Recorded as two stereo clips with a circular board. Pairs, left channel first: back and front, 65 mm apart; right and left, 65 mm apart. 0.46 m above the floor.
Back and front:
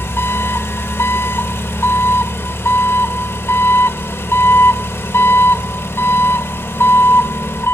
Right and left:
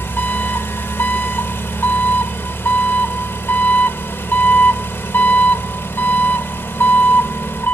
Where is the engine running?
140° right, 1.0 m.